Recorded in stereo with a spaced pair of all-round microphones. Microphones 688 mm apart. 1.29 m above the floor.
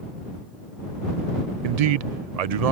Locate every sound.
1.6 s a man speaking: 65° right (ahead or behind)